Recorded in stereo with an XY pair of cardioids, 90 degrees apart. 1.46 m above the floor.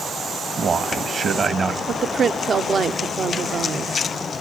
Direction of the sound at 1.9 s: 50° right.